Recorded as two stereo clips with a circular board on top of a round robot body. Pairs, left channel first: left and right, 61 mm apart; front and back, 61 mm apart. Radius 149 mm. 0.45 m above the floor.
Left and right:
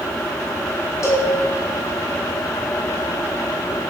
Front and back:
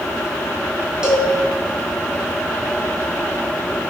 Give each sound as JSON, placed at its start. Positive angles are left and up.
{"t": 1.0, "sound": "a cowbell", "azimuth_deg": 105, "distance_m": 0.9}